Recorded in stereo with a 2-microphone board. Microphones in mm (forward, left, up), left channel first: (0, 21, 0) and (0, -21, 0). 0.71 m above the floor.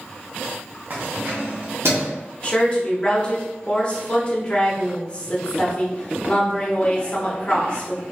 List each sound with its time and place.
0.9 s keys jangling: 50° right (ahead or behind), 0.8 m; by 2.1 s 70° right (ahead or behind), 1.3 m
2.4 s a woman speaking: 25° left (ahead or behind), 1.1 m